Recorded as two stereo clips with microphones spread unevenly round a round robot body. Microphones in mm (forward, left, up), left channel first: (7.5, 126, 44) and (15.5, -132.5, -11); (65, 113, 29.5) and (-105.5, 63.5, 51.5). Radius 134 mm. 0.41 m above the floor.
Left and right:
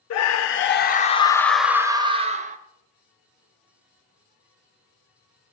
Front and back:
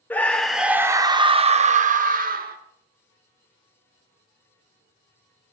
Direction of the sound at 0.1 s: 85° left.